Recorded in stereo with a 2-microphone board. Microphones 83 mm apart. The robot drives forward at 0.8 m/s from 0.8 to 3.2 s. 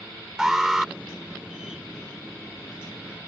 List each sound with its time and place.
0.4 s an alarm: 5° right (ahead or behind)